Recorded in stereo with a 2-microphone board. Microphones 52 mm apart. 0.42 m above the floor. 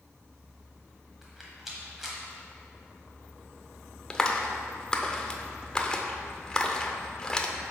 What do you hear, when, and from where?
1.2 s a rattle: 5° right (ahead or behind), 1.4 m
4.1 s a clap: 15° left (ahead or behind), 0.5 m